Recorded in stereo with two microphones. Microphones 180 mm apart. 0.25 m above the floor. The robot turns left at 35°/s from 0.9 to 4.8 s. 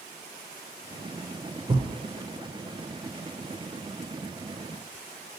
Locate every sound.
1.7 s a thud: 30° right (ahead or behind), 0.9 m; by 1.9 s 20° right (ahead or behind), 0.9 m